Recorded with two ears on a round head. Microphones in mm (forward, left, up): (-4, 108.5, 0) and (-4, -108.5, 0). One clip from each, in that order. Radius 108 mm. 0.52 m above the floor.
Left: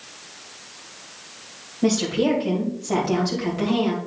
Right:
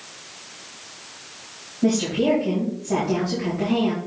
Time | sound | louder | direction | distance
1.8 | a woman speaking | even | 65° left (ahead or behind) | 3 m